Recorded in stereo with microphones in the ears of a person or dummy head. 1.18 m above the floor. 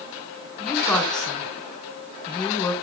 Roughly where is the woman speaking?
Centre.